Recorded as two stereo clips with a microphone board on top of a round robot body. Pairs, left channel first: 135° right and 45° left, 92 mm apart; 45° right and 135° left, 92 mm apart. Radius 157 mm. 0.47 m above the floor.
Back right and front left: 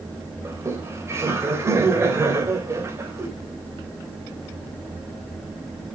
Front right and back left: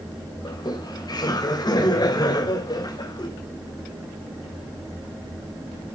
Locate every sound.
0.5 s laughter: 15° right, 3 m